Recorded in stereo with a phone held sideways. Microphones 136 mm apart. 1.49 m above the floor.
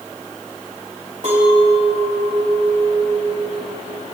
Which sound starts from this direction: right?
A clink, at 1.2 s.